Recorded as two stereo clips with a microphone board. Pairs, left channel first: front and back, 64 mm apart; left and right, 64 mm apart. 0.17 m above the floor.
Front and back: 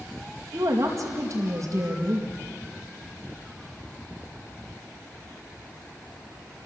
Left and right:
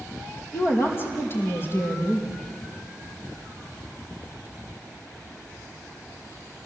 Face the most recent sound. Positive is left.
turn(degrees=140)